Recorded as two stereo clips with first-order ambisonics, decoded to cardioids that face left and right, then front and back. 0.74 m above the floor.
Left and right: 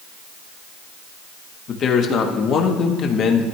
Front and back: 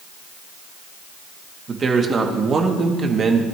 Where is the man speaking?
125° left, 1.2 m.